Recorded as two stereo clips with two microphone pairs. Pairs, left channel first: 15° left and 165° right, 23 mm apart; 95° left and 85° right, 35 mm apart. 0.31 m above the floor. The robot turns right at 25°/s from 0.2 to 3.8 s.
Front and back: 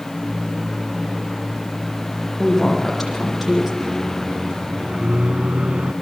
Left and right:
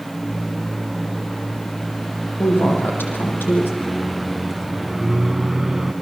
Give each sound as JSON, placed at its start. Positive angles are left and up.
{"t": 2.4, "sound": "a woman speaking", "azimuth_deg": 85, "distance_m": 9.5}
{"t": 3.8, "sound": "a microwave", "azimuth_deg": -170, "distance_m": 1.8}